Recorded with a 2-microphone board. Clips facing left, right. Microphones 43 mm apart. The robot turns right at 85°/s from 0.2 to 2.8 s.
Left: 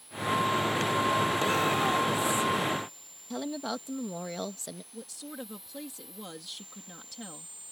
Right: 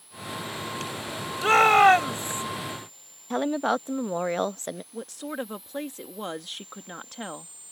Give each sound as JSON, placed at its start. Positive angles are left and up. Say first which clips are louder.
{"t": 1.4, "sound": "a shout", "louder": "right 10 dB", "azimuth_deg": -125}
{"t": 3.3, "sound": "a woman speaking", "louder": "right 9 dB", "side_deg": -45}
{"t": 4.9, "sound": "a woman speaking", "louder": "right 9 dB", "side_deg": -50}